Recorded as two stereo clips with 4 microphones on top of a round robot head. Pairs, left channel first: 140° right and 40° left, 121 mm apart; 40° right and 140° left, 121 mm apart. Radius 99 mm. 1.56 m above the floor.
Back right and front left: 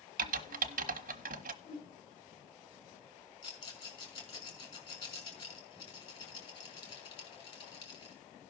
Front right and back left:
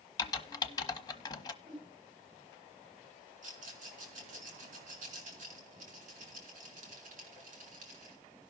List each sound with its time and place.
0.2 s typing on a keyboard: 25° left, 1.0 m
1.6 s a whoosh: 170° right, 8.5 m
3.4 s a rattle: 170° left, 4 m